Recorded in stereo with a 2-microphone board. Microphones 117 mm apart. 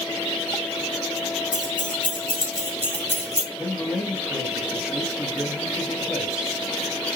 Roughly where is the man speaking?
Centre.